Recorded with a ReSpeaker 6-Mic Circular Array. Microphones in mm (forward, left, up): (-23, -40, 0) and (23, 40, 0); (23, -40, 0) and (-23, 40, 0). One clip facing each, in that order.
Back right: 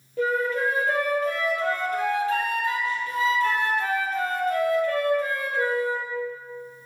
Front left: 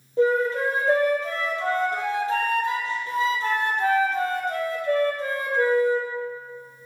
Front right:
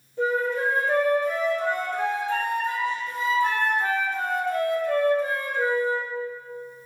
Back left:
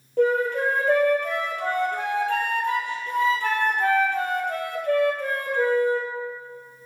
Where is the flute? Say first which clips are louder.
Front left 3 dB, back left 3 dB; 115° left, 1.1 m.